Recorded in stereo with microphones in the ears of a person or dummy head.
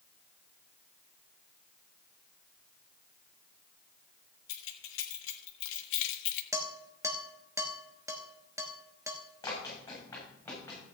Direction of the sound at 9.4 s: 15° left (ahead or behind).